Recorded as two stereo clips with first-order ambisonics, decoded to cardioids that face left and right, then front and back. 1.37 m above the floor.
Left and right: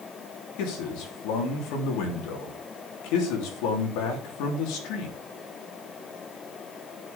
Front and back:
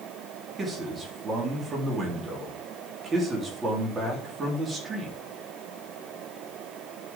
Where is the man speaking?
110° left, 3.5 m.